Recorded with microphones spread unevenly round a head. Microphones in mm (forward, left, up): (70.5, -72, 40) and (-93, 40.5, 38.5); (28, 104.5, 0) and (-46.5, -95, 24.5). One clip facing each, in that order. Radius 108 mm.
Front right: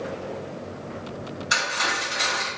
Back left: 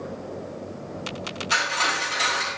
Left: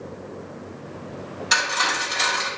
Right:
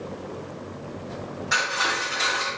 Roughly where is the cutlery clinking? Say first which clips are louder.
Back left 1 dB, left 1 dB; ahead left.